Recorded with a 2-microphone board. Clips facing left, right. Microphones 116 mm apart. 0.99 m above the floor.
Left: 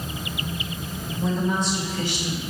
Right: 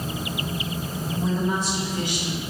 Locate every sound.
1.2 s a woman speaking: centre (ahead or behind), 3 m; by 2.4 s 25° right (ahead or behind), 2 m